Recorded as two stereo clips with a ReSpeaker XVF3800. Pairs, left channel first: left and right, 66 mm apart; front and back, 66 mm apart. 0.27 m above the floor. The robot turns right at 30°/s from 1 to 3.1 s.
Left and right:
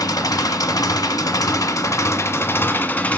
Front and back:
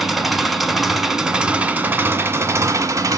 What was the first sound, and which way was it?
An engine running, 95° left.